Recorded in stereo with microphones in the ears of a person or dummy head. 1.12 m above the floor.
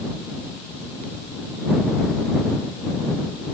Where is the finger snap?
I don't hear a finger snap.